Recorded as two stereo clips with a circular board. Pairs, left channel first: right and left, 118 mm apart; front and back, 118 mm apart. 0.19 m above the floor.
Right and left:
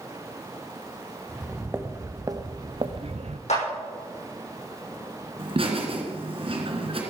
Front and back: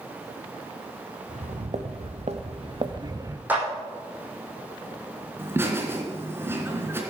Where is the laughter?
115° left, 3 m.